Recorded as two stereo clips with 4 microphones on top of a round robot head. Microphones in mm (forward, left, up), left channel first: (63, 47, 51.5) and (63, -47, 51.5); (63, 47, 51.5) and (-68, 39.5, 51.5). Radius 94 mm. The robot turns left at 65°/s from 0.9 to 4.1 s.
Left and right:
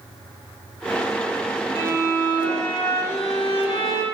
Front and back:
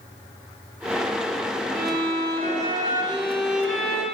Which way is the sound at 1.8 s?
140° right.